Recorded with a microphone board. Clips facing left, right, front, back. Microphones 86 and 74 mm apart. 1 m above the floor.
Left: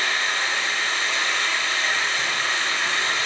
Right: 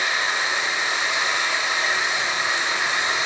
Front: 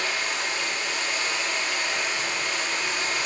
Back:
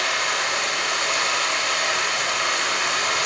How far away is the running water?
About 4 m.